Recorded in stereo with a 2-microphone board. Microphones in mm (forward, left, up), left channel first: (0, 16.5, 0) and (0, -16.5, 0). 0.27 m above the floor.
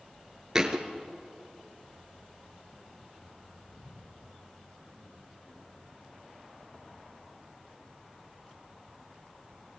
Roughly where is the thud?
Centre.